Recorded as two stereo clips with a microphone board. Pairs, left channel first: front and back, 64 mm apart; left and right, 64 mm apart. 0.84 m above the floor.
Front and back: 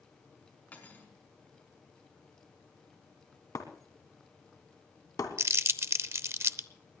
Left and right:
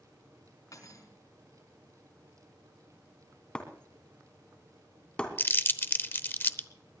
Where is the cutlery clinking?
65° left, 4.5 m.